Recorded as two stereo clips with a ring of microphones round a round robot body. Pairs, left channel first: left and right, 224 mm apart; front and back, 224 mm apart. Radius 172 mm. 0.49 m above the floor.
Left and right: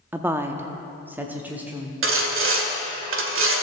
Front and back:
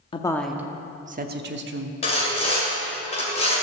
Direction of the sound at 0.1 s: 20° right.